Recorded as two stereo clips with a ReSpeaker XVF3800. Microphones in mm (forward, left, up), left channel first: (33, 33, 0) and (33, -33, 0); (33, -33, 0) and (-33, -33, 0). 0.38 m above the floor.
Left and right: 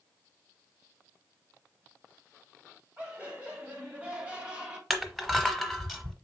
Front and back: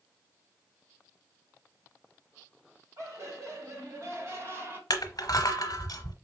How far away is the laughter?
About 2.0 m.